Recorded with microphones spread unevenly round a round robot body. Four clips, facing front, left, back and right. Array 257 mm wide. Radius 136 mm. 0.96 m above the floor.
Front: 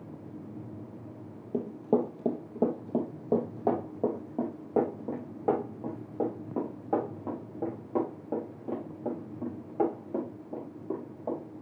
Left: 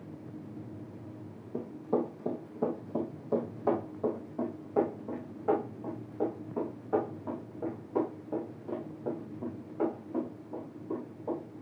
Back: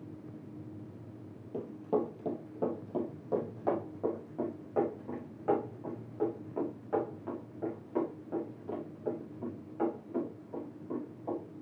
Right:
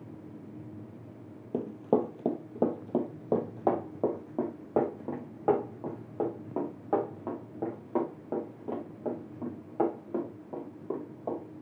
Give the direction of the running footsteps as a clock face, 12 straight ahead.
1 o'clock.